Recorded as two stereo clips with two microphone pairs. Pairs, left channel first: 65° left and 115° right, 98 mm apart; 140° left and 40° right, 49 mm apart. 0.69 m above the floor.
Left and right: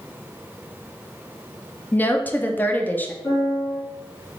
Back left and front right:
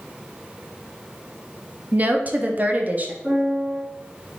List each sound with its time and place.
1.9 s a woman speaking: straight ahead, 0.7 m
3.2 s a piano: 30° left, 2.0 m